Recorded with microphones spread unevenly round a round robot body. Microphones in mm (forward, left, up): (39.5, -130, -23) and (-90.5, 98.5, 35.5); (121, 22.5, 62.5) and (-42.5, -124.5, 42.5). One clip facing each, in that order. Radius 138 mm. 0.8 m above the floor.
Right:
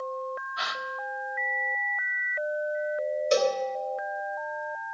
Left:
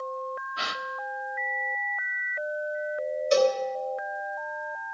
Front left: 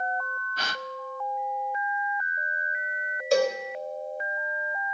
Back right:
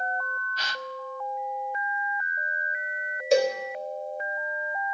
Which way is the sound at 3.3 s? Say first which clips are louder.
Left 3 dB, back right 1 dB; 65° right.